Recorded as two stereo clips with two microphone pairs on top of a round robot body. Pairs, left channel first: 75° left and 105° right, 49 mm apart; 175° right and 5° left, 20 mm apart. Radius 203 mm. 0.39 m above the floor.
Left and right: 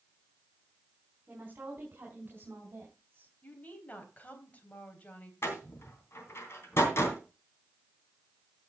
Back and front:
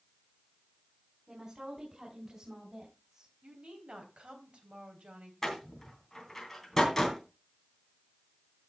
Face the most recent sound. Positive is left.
turn(degrees=110)